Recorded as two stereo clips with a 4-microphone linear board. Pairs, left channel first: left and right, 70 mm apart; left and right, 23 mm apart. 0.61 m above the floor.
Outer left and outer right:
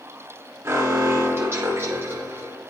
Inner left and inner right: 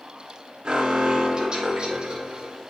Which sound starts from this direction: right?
An alarm, at 0.7 s.